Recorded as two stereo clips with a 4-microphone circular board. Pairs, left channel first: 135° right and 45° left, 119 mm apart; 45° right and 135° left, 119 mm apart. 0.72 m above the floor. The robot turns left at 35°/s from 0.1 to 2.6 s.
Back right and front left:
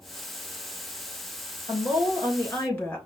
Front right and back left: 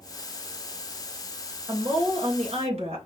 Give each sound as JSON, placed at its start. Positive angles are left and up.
{"t": 1.7, "sound": "a woman speaking", "azimuth_deg": 180, "distance_m": 2.5}